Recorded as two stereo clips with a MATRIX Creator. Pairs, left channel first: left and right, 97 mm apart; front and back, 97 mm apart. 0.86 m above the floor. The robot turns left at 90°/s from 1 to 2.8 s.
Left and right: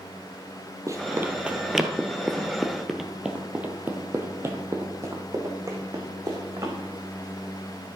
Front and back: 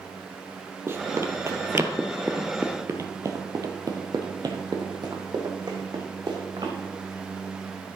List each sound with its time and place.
0.9 s running footsteps: 130° right, 1.1 m; by 6.7 s 140° right, 2.5 m